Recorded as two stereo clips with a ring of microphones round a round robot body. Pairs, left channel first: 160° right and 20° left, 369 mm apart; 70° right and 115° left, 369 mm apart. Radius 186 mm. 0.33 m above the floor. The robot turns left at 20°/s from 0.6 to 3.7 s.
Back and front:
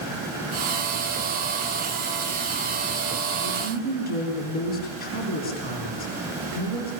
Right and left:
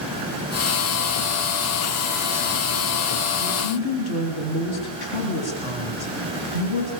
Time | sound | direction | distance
3.4 | a woman speaking | 85° right | 5.5 m